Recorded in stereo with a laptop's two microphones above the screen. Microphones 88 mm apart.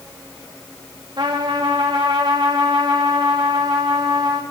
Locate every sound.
1.2 s a trumpet: 65° right (ahead or behind), 1.9 m